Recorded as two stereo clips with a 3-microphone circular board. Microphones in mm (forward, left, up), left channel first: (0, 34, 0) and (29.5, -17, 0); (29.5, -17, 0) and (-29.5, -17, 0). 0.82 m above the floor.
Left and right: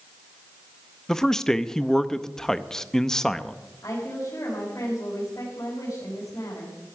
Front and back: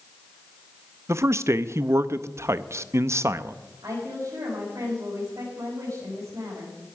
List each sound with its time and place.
1.1 s a man speaking: 160° right, 0.6 m
3.8 s a woman speaking: 155° left, 5 m